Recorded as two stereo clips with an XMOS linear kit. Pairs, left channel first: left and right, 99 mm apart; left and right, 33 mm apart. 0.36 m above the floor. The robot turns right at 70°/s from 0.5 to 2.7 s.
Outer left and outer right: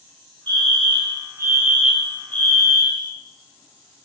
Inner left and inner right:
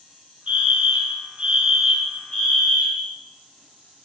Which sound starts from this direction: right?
A fire alarm, at 0.5 s.